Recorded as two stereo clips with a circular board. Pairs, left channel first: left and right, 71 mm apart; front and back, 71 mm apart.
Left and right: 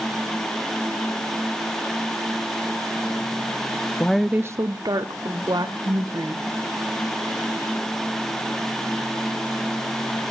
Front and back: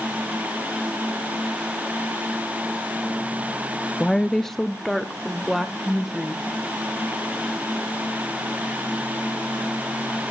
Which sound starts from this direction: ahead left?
A woman speaking, at 4.0 s.